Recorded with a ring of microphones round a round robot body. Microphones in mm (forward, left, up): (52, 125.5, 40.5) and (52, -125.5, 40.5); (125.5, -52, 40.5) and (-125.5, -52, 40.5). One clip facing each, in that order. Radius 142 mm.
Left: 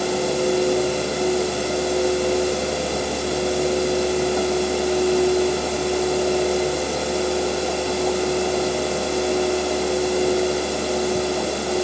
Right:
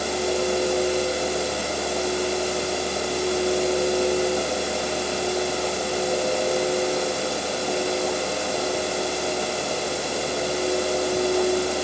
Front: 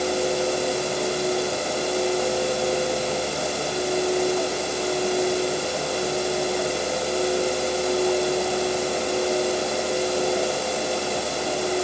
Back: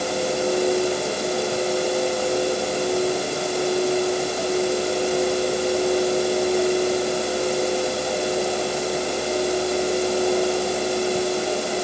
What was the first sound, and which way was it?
Only background noise.